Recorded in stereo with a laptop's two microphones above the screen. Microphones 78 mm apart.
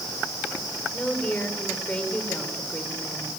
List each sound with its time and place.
0.9 s a woman speaking: 15° left (ahead or behind), 3.5 m